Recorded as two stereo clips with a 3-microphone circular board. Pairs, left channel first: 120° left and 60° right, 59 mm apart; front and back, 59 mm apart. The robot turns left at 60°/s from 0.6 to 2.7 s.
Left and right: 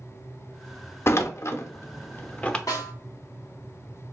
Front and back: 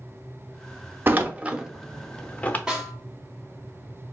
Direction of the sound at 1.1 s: 140° left.